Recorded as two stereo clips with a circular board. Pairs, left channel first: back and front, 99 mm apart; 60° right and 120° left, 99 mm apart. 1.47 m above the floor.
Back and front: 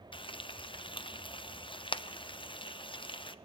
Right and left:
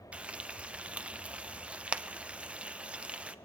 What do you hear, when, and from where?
0.1 s frying: 165° right, 0.7 m